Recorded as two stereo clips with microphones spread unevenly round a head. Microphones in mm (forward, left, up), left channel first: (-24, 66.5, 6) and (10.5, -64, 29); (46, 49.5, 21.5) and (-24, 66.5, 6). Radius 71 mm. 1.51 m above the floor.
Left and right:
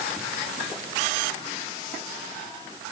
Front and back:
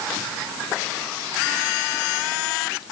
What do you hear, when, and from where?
Only background noise.